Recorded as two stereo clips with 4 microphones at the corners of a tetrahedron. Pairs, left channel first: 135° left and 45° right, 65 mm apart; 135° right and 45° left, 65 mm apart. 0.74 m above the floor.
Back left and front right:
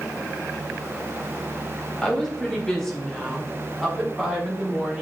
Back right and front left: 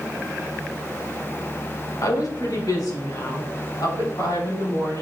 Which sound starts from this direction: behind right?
A woman speaking, at 2.0 s.